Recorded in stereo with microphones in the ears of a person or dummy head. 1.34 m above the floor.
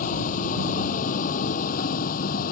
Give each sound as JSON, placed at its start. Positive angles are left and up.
{"t": 0.0, "sound": "a vehicle", "side_deg": 45}